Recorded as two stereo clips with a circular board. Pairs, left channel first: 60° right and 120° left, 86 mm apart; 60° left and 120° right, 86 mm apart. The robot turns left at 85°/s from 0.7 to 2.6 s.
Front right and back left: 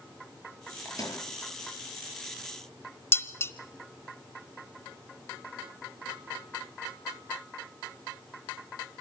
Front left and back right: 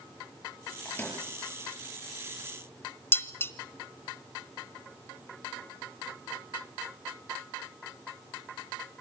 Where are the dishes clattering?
Straight ahead, 1.1 m.